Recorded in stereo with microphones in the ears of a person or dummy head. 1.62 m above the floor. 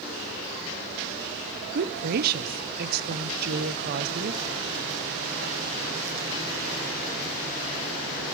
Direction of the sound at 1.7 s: 55° right (ahead or behind).